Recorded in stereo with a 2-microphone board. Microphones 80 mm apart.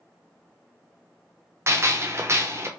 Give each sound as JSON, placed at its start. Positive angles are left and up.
{"t": 1.7, "sound": "a gunshot", "side_deg": -35, "distance_m": 0.5}